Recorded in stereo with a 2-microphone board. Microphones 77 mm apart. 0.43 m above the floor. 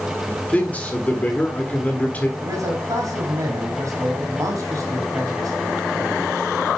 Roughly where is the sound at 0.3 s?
Left.